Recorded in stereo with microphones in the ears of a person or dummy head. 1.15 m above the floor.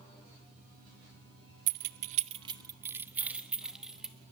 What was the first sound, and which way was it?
Keys jangling, 45° right (ahead or behind).